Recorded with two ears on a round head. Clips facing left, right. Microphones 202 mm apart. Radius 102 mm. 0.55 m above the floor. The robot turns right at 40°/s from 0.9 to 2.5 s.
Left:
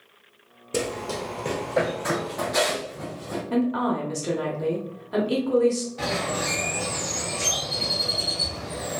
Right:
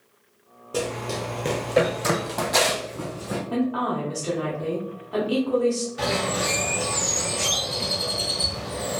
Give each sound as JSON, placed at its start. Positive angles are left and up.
{"t": 0.7, "sound": "running footsteps", "side_deg": 30, "distance_m": 0.6}
{"t": 3.5, "sound": "a woman speaking", "side_deg": 25, "distance_m": 1.0}
{"t": 6.0, "sound": "a bird", "side_deg": -15, "distance_m": 1.5}